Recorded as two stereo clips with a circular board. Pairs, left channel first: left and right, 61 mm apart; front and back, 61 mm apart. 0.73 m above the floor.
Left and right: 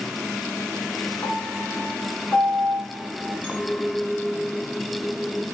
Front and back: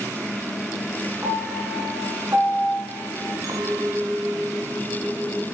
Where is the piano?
145° left, 8.5 m.